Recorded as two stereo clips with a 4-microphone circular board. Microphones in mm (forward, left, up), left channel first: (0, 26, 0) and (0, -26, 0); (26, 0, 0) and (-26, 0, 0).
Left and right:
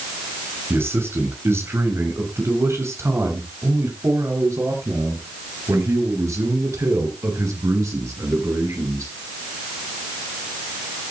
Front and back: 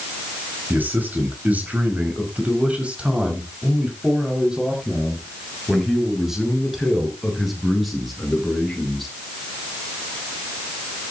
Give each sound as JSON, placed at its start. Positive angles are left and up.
{"t": 0.7, "sound": "a man speaking", "azimuth_deg": -125, "distance_m": 6.0}